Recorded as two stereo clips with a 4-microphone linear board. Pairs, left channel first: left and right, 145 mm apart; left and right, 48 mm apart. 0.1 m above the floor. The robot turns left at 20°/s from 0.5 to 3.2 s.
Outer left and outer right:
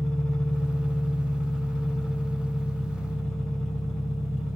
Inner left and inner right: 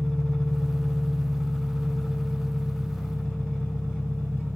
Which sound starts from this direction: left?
An engine running, at 0.0 s.